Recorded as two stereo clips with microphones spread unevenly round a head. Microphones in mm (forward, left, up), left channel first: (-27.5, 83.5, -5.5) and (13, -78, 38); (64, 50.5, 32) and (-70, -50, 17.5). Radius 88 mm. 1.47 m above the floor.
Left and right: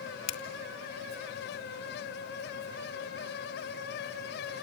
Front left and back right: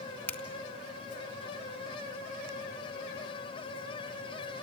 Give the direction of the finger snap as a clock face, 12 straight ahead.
8 o'clock.